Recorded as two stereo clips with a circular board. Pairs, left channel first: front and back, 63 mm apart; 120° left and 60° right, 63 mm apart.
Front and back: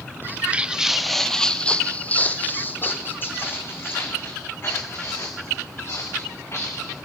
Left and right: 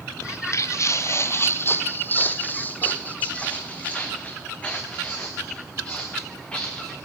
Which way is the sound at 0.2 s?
140° left.